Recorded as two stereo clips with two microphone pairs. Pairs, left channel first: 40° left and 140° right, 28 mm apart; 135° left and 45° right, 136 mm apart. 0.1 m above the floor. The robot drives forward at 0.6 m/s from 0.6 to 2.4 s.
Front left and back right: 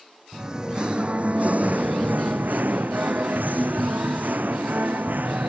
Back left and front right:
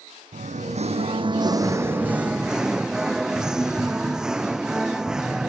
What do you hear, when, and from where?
0.3 s singing: 75° right; by 5.5 s 135° right